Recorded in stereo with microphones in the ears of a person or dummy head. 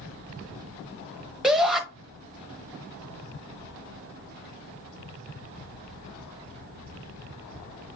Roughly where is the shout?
Centre.